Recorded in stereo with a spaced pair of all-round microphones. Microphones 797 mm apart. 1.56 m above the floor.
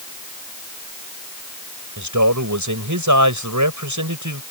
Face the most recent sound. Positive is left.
turn(degrees=-20)  # may be behind; listen again after turning